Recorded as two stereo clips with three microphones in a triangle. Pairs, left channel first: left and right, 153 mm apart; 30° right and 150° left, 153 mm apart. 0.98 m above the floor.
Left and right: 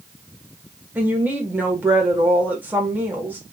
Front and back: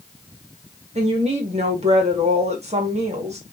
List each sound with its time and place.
0.9 s a woman speaking: 165° right, 2 m